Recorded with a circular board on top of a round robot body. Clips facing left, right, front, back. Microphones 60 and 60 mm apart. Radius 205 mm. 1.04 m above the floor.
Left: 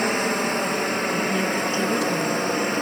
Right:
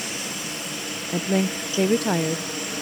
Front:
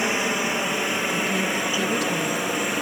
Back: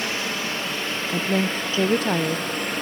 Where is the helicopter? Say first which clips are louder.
Left 10 dB, front 4 dB; 65° left; by 2.8 s 75° left.